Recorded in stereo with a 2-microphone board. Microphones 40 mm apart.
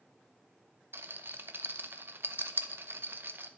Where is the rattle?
55° right (ahead or behind), 0.7 m.